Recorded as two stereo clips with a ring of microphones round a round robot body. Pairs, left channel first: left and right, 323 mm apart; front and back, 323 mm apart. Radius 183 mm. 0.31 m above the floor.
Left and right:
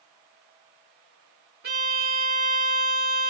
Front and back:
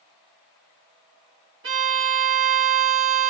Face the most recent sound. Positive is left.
turn(degrees=-140)